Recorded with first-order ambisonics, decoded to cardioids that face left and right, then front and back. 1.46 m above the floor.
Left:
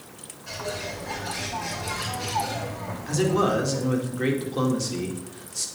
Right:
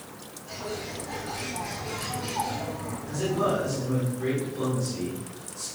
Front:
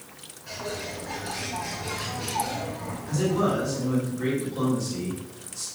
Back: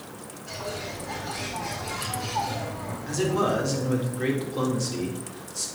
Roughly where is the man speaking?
Left.